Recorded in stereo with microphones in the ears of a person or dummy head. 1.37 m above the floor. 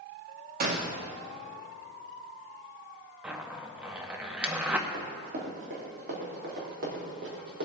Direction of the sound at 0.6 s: 40° right (ahead or behind).